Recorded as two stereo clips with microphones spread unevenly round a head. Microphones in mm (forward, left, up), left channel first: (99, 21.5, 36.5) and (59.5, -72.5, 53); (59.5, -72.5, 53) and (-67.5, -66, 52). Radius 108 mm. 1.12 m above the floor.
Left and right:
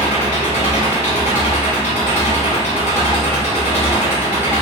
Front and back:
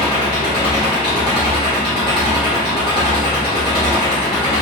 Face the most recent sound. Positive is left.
turn(degrees=75)